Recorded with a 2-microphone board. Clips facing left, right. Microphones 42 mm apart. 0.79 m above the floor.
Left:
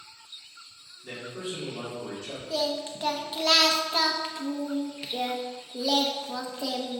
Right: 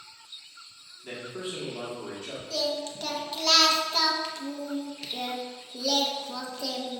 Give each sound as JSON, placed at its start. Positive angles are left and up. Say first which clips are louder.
{"t": 1.0, "sound": "a man speaking", "louder": "even", "side_deg": -30, "distance_m": 2.0}
{"t": 2.5, "sound": "singing", "louder": "left 1 dB", "side_deg": 20, "distance_m": 0.7}